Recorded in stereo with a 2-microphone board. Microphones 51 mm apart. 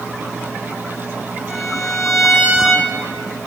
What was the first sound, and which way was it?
A violin, 5° right (ahead or behind).